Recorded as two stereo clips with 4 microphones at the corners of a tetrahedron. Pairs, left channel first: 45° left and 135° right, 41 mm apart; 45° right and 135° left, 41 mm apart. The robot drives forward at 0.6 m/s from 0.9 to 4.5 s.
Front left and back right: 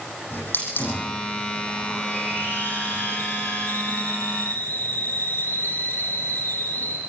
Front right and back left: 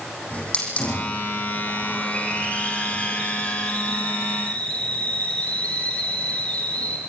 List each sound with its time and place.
0.3 s a hiss: 10° left, 9.5 m; by 7.0 s 15° left, 7 m